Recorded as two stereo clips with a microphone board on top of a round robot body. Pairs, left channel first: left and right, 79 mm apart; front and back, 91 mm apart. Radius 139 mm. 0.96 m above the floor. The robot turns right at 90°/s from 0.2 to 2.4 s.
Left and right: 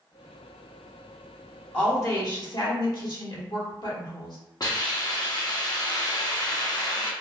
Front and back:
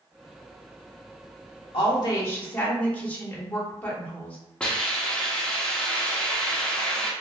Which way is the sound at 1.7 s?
15° left.